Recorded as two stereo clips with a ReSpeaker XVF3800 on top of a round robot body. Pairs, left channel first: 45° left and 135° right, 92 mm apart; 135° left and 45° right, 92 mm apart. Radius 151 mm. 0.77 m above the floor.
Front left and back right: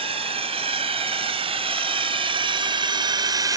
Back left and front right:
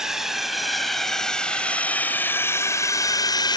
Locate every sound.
0.0 s a drone: 130° right; by 3.6 s 175° left